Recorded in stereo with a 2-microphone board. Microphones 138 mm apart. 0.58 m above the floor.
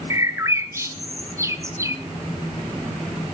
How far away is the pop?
I don't hear a pop.